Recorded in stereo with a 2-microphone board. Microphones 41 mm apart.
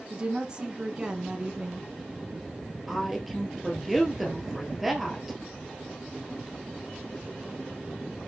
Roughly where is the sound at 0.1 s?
Right.